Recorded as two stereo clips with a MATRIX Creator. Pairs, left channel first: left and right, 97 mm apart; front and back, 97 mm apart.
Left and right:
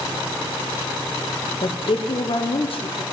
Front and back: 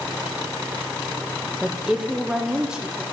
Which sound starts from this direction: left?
A woman speaking, at 1.6 s.